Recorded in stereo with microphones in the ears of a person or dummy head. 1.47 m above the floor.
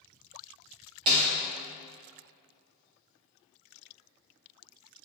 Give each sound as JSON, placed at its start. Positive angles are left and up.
{"t": 1.1, "sound": "a snare drum", "side_deg": -25, "distance_m": 1.1}